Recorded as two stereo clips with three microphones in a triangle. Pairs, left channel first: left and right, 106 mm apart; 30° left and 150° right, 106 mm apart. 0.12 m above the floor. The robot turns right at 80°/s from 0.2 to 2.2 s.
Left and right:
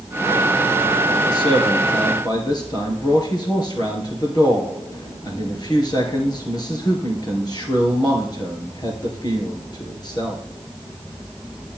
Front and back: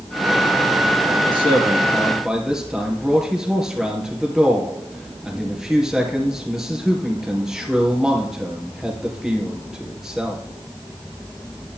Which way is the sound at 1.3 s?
50° left.